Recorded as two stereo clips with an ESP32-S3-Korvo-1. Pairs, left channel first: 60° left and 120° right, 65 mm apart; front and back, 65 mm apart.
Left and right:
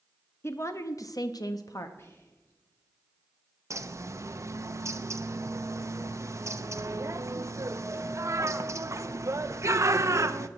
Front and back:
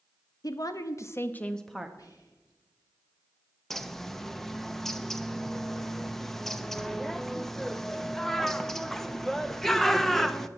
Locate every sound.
0.4 s a woman speaking: 10° left, 1.2 m; by 1.9 s 95° left, 0.9 m
2.0 s whispering: 15° left, 2.0 m
3.7 s a bird: 85° right, 0.6 m